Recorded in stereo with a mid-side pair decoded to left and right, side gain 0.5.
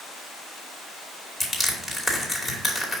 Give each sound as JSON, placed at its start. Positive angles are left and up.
{"t": 1.4, "sound": "crushing", "azimuth_deg": 25, "distance_m": 2.5}